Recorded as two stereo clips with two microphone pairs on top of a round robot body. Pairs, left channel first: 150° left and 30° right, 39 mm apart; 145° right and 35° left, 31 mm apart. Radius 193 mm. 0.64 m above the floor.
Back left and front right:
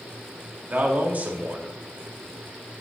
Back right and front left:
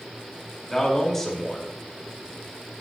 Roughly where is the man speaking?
Right.